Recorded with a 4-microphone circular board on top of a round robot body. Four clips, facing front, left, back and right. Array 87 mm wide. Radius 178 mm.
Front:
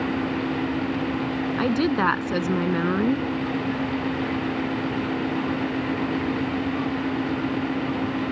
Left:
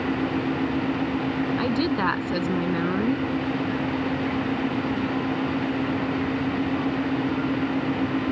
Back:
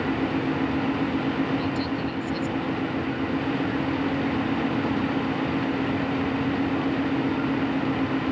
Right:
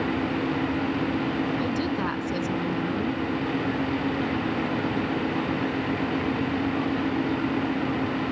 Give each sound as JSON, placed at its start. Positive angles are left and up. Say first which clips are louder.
{"t": 1.6, "sound": "a woman speaking", "louder": "left 3 dB, front 5 dB", "azimuth_deg": 20}